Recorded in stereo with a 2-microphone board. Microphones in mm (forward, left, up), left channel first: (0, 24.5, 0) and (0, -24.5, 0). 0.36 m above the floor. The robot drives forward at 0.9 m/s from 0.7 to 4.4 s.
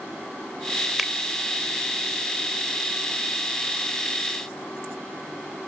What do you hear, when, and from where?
1.0 s a finger snap: 5° right (ahead or behind)